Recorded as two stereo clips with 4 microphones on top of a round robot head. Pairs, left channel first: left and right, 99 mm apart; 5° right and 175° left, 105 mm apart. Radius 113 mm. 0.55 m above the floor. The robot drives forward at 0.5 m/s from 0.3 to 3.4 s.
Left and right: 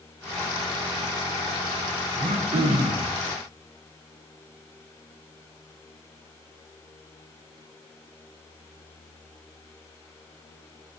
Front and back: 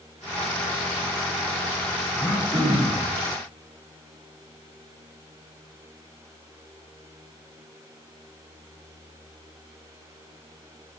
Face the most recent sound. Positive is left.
turn(degrees=-135)